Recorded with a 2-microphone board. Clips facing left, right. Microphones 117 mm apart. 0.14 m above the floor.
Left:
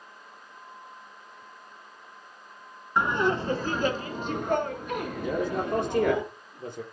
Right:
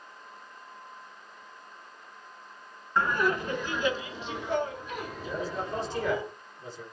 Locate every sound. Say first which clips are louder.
3.0 s laughter: left 2 dB; 15° left (ahead or behind), 1.2 m; by 6.2 s 60° left (ahead or behind), 3 m
5.2 s a man speaking: left 6 dB; 55° left (ahead or behind), 3.5 m